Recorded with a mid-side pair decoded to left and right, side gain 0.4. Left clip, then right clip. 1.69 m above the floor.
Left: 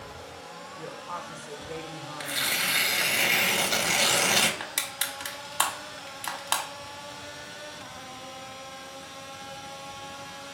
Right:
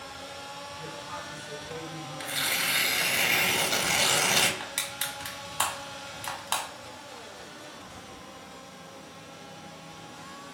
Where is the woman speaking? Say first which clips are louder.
Left 5 dB; 55° left, 0.9 m.